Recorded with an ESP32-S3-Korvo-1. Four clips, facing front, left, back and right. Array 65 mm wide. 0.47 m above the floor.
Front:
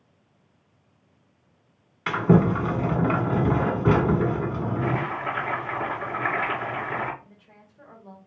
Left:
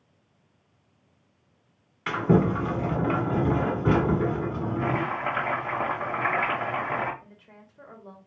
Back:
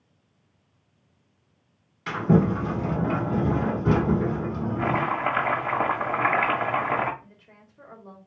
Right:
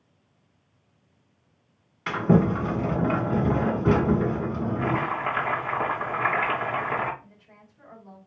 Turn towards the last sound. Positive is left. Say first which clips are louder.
# left 2 dB, even
turn(degrees=120)